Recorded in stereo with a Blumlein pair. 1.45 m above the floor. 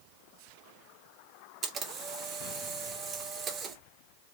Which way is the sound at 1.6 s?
25° right.